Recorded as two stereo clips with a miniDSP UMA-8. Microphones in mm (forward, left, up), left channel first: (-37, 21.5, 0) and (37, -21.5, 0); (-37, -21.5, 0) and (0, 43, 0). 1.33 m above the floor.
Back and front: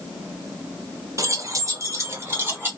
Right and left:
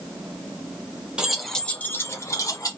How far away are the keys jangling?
About 0.5 m.